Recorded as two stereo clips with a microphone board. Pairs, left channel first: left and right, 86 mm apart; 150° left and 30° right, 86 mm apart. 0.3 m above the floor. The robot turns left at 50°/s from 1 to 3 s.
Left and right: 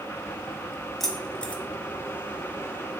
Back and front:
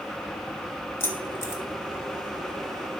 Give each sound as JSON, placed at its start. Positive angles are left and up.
{"t": 1.0, "sound": "keys jangling", "azimuth_deg": 175, "distance_m": 0.7}